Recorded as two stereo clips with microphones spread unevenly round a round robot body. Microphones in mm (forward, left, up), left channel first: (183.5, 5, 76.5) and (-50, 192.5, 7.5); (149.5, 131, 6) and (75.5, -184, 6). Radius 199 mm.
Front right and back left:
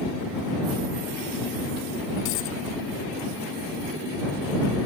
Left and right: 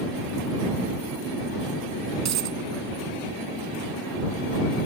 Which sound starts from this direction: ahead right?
A dropped coin, at 2.2 s.